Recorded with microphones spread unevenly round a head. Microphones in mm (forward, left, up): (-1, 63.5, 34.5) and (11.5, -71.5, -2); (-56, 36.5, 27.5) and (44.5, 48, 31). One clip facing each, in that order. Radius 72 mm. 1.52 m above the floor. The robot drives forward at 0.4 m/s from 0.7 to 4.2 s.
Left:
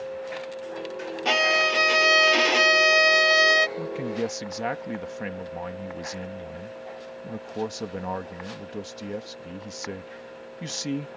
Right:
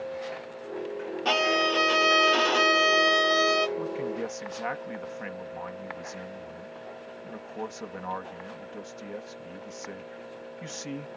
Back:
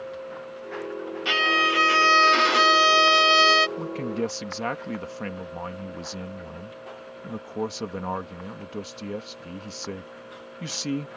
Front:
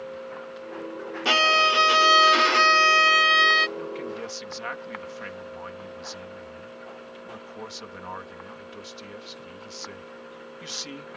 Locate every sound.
1.2 s a violin: 30° left; by 3.7 s 150° left
3.8 s a man speaking: 145° left